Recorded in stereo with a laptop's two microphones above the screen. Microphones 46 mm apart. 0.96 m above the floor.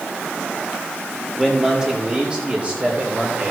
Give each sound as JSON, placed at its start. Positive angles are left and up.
{"t": 1.4, "sound": "a man speaking", "side_deg": -5, "distance_m": 2.0}